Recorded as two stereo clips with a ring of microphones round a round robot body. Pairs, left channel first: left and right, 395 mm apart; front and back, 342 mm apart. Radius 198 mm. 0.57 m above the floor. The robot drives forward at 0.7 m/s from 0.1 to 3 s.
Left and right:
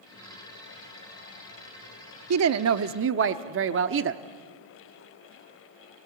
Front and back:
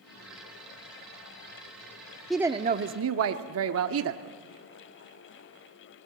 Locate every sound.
2.3 s a woman speaking: 85° right, 0.7 m; by 4.2 s 140° right, 0.8 m